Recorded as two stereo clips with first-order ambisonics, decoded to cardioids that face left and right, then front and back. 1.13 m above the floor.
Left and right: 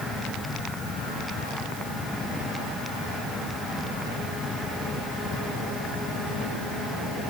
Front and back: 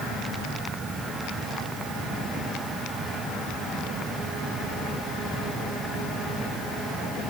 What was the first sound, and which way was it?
Only background noise.